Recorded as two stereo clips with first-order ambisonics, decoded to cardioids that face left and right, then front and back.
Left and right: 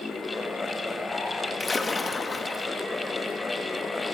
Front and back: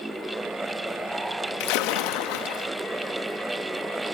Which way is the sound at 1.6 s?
15° left.